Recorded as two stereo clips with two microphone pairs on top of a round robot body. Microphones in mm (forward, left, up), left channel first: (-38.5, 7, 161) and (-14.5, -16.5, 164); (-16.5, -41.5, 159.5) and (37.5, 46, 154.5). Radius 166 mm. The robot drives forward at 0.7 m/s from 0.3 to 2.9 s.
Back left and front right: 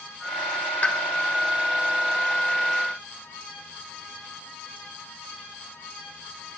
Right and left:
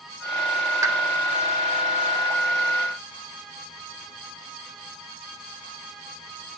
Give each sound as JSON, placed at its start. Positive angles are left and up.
{"t": 0.8, "sound": "a pop", "azimuth_deg": 110, "distance_m": 1.4}